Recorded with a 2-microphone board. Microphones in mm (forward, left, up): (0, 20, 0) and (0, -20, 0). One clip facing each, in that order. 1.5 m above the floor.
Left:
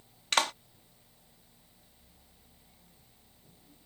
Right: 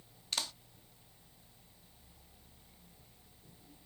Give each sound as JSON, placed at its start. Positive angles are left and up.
{"t": 0.3, "sound": "a clap", "side_deg": 70}